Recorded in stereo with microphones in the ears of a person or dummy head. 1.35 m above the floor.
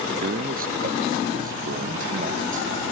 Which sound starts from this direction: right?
A man speaking, at 0.2 s.